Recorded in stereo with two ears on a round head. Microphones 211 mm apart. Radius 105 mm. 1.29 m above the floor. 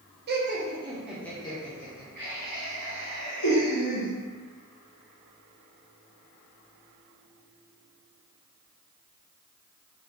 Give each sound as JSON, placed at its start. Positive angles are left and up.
{"t": 0.3, "sound": "laughter", "side_deg": -45, "distance_m": 0.7}